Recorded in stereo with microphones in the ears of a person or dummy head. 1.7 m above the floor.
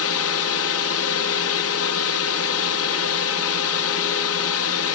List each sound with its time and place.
0.0 s a drone: 70° left (ahead or behind)